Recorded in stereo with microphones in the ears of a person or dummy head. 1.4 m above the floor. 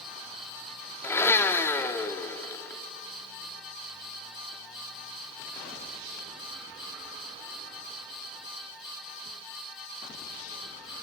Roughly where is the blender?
Centre.